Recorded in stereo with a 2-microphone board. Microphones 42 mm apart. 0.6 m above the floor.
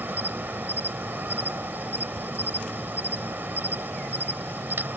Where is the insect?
50° right (ahead or behind).